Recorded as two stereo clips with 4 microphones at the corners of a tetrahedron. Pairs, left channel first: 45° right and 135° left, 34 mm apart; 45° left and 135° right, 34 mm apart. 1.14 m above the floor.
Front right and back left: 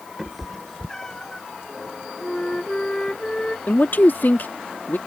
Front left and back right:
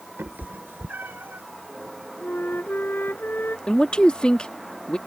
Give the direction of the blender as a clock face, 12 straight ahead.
I don't hear a blender.